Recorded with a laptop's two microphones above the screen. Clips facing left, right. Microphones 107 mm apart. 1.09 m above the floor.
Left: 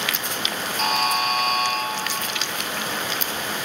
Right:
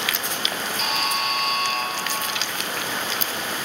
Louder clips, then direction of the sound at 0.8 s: Left 5 dB; 45° left (ahead or behind).